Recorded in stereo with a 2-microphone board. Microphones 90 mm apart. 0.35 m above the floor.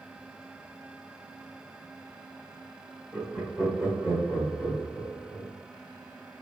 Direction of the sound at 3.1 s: 15° right (ahead or behind).